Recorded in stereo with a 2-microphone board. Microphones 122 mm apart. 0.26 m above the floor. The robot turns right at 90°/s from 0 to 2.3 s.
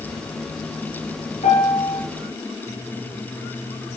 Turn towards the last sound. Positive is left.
turn(degrees=160)